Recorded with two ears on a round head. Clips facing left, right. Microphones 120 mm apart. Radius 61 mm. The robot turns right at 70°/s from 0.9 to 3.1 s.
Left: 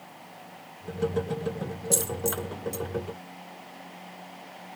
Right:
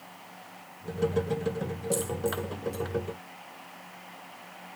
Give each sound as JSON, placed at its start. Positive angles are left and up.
{"t": 1.9, "sound": "a dropped coin", "side_deg": 65, "distance_m": 1.6}